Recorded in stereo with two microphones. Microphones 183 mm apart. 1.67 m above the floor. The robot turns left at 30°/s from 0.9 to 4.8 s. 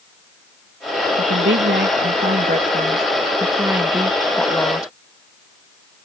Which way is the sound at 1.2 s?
90° right.